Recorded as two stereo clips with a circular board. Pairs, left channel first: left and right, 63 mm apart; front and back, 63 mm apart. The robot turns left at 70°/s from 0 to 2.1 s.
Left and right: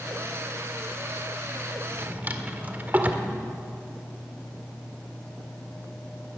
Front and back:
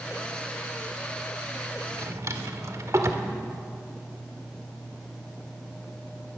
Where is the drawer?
135° right, 1.7 m; by 3.3 s 150° right, 1.7 m.